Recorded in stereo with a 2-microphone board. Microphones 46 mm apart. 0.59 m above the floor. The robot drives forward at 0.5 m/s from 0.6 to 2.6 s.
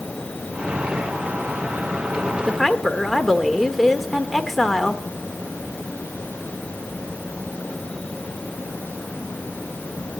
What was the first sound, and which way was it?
A woman speaking, centre (ahead or behind).